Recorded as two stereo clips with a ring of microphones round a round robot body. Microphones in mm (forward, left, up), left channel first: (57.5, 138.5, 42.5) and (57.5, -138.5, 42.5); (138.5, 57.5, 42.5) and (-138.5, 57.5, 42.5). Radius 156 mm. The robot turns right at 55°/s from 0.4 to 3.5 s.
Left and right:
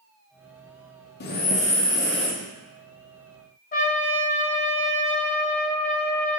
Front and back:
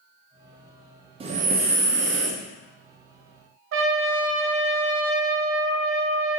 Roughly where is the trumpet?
Behind left.